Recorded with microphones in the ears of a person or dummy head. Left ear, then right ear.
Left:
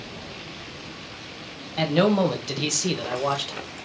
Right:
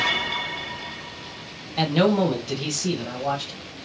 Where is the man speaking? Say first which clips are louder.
Even; 15° right (ahead or behind), 0.6 m; by 3.6 s 45° left (ahead or behind), 1.1 m.